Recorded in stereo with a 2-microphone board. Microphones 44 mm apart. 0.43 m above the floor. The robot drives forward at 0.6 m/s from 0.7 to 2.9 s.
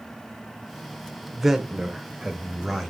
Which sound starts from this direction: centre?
A man speaking, at 1.3 s.